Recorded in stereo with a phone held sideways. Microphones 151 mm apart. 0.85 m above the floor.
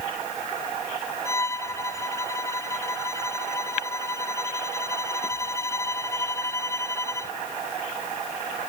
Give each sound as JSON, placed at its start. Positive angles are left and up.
{"t": 1.2, "sound": "a violin", "side_deg": 20}